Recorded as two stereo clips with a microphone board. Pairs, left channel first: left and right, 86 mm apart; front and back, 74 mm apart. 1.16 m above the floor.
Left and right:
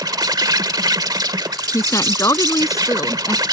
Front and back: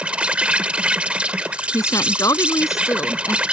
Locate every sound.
0.0 s an insect: 110° right
1.7 s a woman speaking: 40° left